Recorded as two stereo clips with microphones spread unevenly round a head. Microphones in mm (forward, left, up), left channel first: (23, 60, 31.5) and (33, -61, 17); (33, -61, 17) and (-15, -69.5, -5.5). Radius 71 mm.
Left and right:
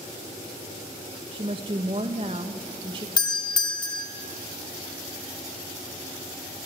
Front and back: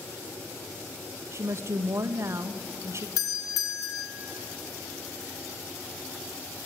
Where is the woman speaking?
140° right, 1.5 m.